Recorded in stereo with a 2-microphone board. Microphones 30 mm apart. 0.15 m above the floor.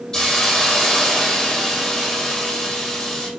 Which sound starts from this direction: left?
A hiss, at 0.1 s.